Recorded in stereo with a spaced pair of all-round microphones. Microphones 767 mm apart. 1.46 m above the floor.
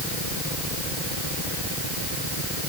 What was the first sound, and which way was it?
Only background noise.